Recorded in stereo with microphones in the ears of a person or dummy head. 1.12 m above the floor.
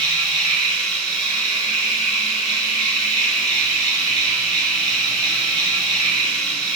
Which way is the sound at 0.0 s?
20° right (ahead or behind).